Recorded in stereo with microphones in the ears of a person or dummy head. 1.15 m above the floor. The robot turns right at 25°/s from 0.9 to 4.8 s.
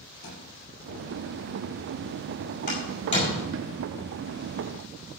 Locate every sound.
0.2 s a thud: 65° left (ahead or behind), 5.5 m
2.7 s a door slam: 45° left (ahead or behind), 4.5 m; by 3.7 s 20° left (ahead or behind), 4.5 m